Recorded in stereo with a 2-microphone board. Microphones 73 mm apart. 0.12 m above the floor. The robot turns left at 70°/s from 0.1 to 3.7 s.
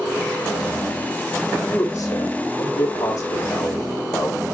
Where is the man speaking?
160° left, 5 m; by 4.4 s 15° left, 5 m.